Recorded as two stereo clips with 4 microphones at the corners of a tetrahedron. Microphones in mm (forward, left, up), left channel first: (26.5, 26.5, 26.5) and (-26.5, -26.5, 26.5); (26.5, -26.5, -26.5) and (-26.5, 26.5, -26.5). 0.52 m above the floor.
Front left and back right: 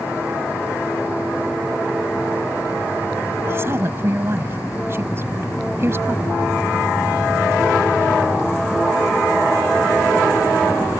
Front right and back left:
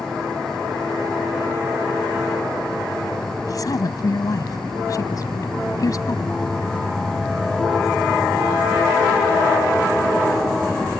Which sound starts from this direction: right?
A woman speaking, at 3.5 s.